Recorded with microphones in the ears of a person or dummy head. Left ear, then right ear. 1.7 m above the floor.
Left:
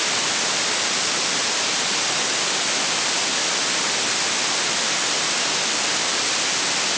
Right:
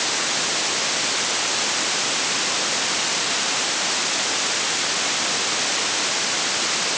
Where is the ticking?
No ticking in this recording.